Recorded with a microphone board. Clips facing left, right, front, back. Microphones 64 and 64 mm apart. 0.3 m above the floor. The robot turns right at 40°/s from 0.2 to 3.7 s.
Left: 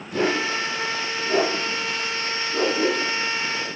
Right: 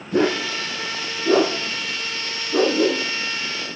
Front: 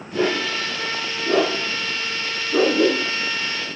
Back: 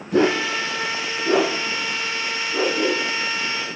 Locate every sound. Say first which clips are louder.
0.1 s a dog barking: right 2 dB, back 3 dB; 145° right, 3 m; by 3.0 s 30° right, 3 m